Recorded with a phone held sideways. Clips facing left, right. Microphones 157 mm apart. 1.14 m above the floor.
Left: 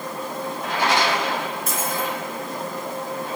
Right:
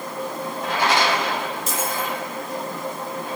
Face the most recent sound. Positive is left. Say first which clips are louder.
# even
turn(degrees=55)  # may be behind; listen again after turning